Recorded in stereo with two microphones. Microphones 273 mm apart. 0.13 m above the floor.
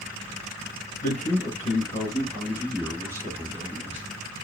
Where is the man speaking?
35° left (ahead or behind), 1.8 m; by 4.1 s 25° right (ahead or behind), 1.7 m.